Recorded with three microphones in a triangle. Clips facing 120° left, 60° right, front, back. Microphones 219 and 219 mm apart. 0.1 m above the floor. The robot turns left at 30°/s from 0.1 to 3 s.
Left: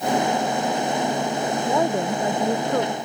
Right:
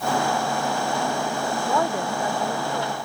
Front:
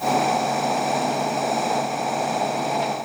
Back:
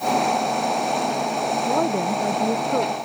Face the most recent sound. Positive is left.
turn(degrees=150)